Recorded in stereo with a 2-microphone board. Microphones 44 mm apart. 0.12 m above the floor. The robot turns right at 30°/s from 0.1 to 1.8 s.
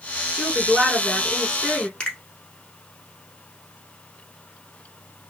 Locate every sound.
0.3 s a woman speaking: 25° right, 1.6 m; by 1.9 s 20° left, 1.6 m
2.0 s a finger snap: 20° left (ahead or behind), 0.9 m